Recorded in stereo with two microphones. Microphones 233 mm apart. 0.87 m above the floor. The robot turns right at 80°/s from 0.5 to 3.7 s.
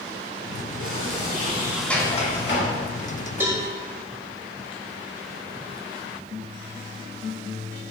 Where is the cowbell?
10° right (ahead or behind), 1.9 m; by 3.6 s 25° right (ahead or behind), 1.9 m.